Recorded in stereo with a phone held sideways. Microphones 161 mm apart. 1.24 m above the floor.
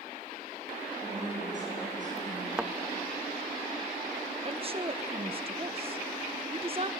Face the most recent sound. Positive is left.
turn(degrees=-35)  # may be behind; listen again after turning